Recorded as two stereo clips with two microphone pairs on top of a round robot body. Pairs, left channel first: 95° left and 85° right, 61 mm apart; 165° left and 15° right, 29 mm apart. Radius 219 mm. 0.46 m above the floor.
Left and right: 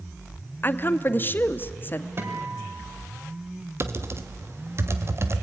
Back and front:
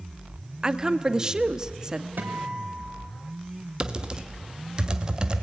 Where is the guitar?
35° right, 3.5 m.